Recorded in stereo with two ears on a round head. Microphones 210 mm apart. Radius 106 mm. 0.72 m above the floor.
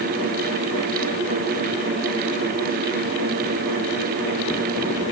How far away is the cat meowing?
I don't hear a cat meowing.